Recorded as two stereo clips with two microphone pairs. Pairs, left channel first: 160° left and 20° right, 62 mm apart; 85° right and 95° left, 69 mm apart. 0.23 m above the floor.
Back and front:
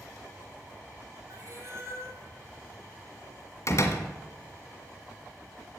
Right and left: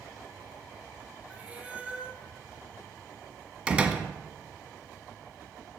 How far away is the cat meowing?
About 2.5 m.